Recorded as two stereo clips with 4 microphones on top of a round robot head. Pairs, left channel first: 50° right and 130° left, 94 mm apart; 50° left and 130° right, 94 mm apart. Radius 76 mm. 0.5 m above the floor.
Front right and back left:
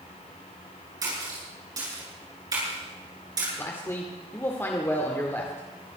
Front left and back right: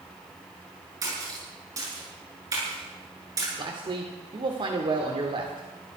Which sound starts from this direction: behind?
A splash, at 1.0 s.